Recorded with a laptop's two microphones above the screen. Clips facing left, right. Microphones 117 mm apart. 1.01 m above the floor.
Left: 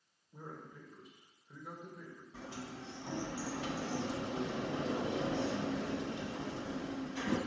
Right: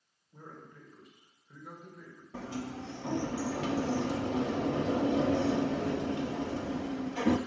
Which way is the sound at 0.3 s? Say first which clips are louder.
Left 1 dB; 5° left (ahead or behind).